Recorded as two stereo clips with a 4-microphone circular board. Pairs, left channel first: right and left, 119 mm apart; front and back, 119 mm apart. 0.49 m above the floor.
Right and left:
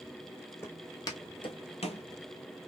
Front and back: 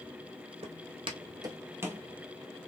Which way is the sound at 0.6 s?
160° right.